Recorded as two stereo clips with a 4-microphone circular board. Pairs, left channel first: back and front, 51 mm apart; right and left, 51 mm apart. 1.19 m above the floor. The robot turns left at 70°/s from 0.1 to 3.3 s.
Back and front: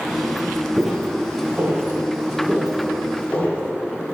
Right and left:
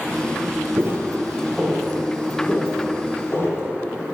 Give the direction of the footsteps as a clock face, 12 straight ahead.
9 o'clock.